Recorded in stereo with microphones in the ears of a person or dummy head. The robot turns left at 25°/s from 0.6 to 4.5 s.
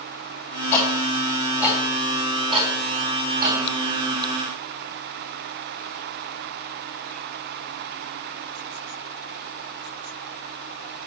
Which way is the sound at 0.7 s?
15° left (ahead or behind).